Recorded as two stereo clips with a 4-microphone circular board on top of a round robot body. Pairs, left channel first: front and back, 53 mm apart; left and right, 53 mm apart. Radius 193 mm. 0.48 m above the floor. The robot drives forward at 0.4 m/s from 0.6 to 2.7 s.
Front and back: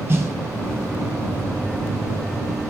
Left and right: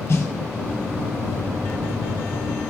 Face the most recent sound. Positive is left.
turn(degrees=150)